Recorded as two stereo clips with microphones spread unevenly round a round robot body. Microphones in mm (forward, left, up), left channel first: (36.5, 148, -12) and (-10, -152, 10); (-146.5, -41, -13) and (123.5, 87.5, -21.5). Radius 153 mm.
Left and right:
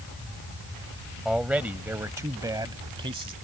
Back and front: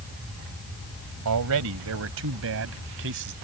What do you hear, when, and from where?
1.2 s a man speaking: 10° right; by 3.3 s 25° right